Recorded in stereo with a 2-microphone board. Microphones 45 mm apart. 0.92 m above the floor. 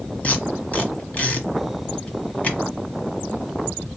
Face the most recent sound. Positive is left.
turn(degrees=35)  # may be behind; listen again after turning